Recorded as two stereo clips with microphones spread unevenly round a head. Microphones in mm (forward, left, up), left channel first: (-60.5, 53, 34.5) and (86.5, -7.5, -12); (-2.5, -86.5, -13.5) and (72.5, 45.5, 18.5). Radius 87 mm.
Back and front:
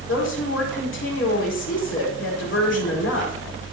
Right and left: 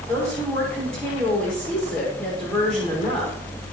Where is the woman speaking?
155° left, 5.5 m.